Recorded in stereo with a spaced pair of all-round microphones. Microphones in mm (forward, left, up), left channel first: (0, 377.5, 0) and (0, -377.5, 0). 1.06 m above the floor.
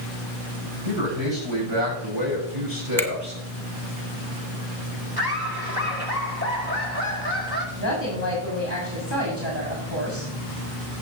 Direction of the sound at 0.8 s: 40° right (ahead or behind).